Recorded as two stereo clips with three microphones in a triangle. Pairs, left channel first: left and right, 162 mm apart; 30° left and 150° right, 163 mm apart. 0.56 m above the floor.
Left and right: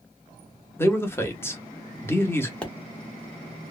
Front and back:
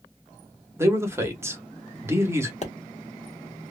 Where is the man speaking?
150° left, 0.8 m.